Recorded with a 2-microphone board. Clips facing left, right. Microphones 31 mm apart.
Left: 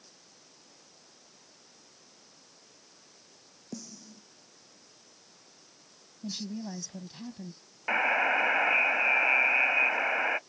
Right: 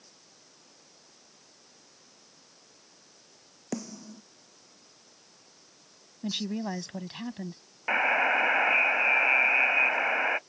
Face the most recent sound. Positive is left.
turn(degrees=-5)  # may be behind; listen again after turning